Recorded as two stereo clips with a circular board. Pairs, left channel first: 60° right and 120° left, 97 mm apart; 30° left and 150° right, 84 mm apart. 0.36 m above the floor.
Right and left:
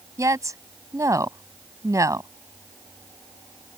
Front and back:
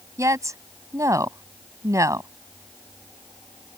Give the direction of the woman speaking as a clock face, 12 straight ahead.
6 o'clock.